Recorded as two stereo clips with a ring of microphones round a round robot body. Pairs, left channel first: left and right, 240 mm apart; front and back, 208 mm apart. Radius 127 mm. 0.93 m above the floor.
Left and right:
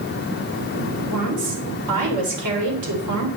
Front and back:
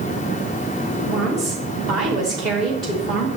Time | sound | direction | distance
1.0 | a woman speaking | 90° right | 3 m